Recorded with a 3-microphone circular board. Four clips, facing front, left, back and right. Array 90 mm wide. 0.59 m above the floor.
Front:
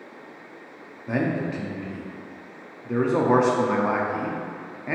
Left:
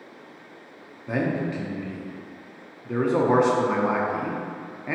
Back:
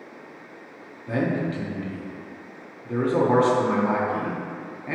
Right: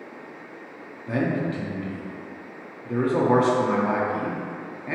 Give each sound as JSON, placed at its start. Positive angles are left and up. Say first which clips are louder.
{"t": 1.1, "sound": "a man speaking", "louder": "right 1 dB, even", "azimuth_deg": 25, "distance_m": 0.6}